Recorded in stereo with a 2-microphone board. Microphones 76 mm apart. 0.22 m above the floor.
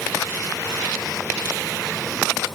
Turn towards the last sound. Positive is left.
No sound to turn to.